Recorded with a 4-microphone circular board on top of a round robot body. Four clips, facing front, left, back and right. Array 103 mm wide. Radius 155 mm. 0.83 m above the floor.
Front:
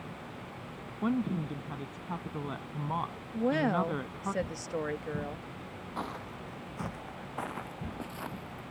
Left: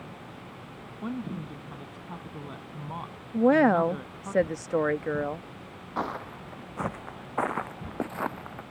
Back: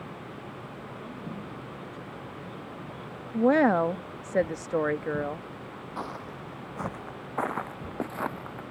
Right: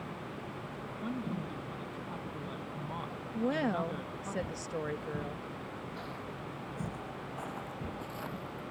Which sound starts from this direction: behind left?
A woman speaking, at 3.3 s.